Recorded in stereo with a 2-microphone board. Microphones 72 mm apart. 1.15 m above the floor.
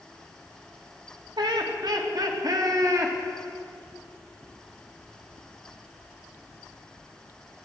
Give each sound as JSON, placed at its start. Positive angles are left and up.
{"t": 1.4, "sound": "laughter", "side_deg": -80, "distance_m": 2.5}